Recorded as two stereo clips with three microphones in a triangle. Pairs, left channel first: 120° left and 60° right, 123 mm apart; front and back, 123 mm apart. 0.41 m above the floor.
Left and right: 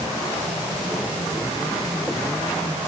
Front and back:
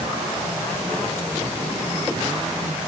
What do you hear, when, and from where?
Only background noise.